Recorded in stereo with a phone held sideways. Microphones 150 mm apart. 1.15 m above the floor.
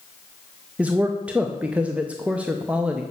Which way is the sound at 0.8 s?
10° right (ahead or behind).